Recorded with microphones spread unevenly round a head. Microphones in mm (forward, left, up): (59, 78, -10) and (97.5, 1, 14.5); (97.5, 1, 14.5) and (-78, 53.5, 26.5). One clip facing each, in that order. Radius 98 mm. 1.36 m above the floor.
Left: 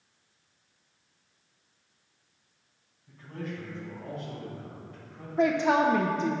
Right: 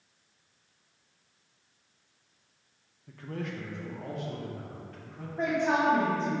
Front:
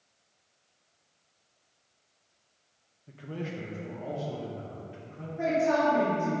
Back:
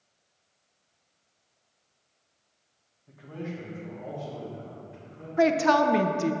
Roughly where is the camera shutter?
I don't hear a camera shutter.